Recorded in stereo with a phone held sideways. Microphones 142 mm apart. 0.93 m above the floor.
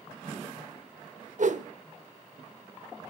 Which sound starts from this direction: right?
A whoosh, at 1.4 s.